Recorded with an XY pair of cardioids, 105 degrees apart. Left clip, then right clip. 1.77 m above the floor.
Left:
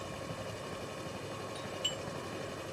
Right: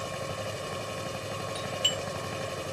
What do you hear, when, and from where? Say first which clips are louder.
0.0 s a machine running: right 7 dB; 60° right
1.6 s a doorbell: right 9 dB; 60° right